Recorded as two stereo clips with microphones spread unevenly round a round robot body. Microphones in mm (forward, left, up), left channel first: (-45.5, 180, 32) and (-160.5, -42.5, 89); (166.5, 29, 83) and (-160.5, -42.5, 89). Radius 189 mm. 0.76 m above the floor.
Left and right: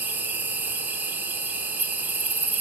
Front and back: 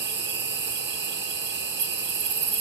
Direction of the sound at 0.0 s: 145° left.